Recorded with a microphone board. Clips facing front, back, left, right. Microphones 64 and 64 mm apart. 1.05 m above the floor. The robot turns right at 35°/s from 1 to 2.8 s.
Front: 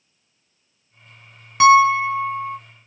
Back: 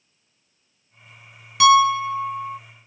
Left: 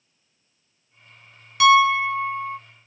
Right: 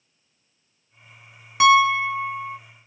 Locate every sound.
1.6 s a piano: 40° right, 0.6 m; by 2.6 s 5° right, 0.6 m